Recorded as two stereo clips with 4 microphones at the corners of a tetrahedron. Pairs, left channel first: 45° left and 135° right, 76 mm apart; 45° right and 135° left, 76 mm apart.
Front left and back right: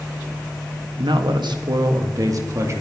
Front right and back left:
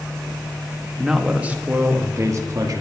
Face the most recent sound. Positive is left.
turn(degrees=175)